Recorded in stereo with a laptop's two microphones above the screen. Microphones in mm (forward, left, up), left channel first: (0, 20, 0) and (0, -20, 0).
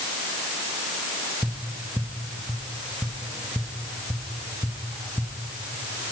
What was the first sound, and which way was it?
Tapping, 55° right (ahead or behind).